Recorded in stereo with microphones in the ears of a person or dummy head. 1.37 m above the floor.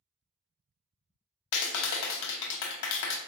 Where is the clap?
80° left, 0.5 m.